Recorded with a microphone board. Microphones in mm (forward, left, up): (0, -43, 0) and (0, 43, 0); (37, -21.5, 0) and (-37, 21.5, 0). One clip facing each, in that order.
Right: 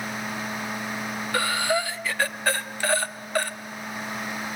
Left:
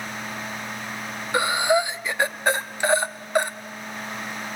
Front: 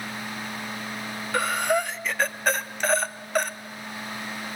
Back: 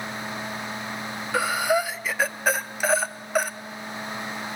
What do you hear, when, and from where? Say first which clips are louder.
1.3 s breathing: left 5 dB, back 1 dB; 75° left, 0.6 m